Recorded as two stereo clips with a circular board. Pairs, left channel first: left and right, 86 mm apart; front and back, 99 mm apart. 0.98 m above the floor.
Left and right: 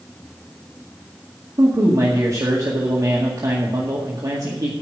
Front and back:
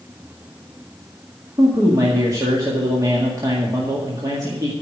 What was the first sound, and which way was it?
A man speaking, 130° right.